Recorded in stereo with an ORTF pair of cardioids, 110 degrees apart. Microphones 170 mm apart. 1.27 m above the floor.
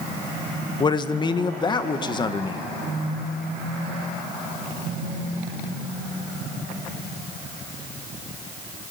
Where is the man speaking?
25° left, 1.2 m.